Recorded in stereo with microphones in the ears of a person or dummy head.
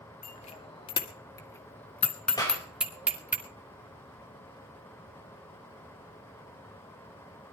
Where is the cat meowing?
No cat meowing in this recording.